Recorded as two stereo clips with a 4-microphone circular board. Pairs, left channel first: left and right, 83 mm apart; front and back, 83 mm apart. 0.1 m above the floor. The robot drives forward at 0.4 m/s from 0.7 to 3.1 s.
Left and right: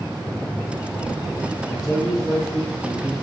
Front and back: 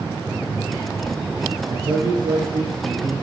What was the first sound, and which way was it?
A man speaking, 175° right.